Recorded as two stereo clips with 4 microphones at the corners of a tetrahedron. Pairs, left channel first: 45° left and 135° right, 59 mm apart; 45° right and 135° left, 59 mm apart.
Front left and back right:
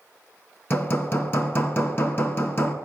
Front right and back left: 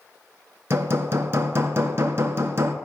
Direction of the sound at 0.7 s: 90° left.